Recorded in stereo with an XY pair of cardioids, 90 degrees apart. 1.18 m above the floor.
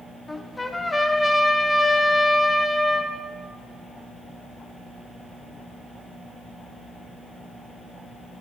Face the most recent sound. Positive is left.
turn(degrees=15)